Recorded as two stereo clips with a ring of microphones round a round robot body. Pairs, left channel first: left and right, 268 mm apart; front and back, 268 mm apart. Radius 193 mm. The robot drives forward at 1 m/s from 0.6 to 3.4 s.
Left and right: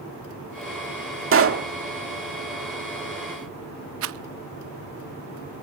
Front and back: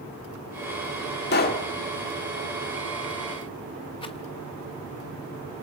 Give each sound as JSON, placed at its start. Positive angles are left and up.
{"t": 1.3, "sound": "a pop", "azimuth_deg": -55, "distance_m": 1.6}
{"t": 4.0, "sound": "a rattle", "azimuth_deg": -70, "distance_m": 0.6}